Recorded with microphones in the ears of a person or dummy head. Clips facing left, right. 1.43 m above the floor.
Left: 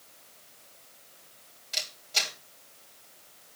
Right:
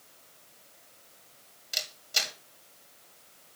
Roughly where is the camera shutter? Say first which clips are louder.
Left 1 dB; centre.